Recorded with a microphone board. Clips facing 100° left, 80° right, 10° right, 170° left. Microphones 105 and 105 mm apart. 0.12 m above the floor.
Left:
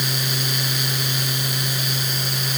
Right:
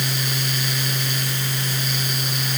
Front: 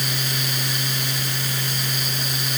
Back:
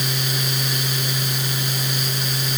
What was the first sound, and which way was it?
Only background noise.